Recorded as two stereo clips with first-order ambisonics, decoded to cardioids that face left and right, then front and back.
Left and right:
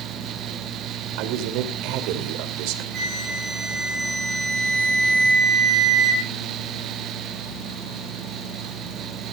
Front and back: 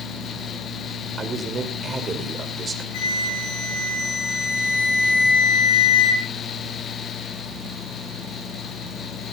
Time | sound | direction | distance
1.2 | a man speaking | 110° right | 2.5 m
2.9 | a flute | 25° right | 8 m